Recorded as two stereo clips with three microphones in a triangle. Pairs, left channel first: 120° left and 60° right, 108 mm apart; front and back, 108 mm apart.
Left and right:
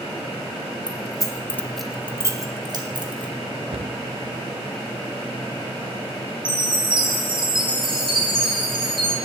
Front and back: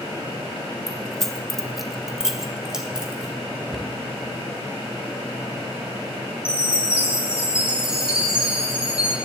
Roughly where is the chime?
Right.